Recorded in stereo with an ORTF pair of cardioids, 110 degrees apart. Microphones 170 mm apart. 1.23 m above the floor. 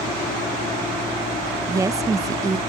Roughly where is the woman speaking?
Ahead.